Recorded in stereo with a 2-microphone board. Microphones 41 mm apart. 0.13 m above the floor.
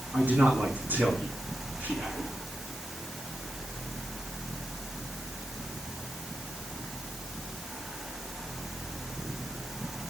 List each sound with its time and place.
0.1 s a man speaking: 50° right (ahead or behind), 8 m